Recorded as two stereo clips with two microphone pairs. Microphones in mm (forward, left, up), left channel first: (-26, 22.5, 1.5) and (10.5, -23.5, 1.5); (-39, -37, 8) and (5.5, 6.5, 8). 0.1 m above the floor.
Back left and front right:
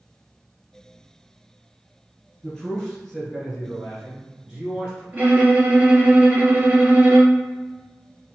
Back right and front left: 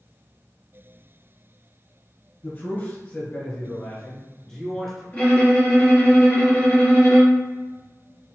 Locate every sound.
2.4 s a man speaking: 160° right, 2.0 m; by 5.0 s 50° right, 1.7 m
5.1 s a violin: 85° right, 1.4 m